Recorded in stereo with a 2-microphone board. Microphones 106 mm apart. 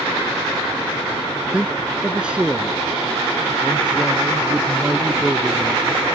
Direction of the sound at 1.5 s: 10° right (ahead or behind).